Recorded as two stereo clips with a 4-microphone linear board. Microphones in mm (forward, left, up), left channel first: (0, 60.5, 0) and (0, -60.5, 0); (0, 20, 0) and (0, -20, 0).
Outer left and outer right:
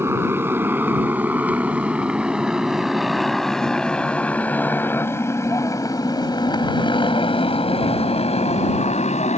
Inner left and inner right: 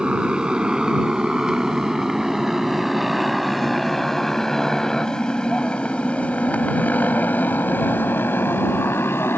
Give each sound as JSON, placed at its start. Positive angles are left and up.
{"t": 0.0, "sound": "a motorcycle", "side_deg": -20}